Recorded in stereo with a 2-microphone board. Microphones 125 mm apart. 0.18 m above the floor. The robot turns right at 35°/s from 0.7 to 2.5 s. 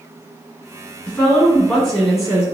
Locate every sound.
1.1 s a woman speaking: 15° left (ahead or behind), 1.7 m; by 2.5 s 5° right (ahead or behind), 1.7 m